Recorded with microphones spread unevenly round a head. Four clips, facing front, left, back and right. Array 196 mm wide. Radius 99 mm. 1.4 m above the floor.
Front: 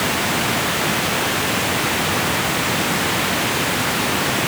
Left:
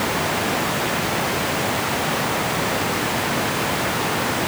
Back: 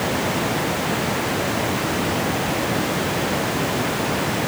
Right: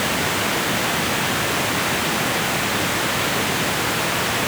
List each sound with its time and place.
Only background noise.